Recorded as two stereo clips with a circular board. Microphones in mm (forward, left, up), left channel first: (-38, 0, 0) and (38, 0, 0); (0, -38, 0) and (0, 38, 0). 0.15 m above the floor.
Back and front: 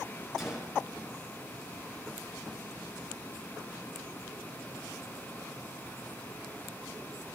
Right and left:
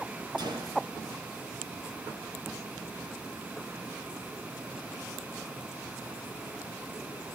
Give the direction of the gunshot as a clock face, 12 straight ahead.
9 o'clock.